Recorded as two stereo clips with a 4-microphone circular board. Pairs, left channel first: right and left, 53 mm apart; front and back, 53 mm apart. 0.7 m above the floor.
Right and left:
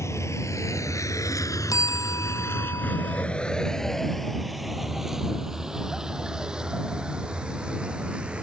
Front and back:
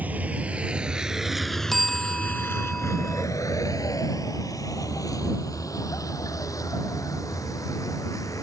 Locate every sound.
0.0 s a vehicle: 120° right; by 8.4 s 20° left
1.7 s a bell: 85° right